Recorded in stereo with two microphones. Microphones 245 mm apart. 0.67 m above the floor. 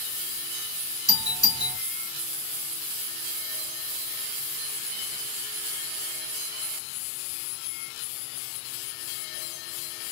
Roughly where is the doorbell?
Centre.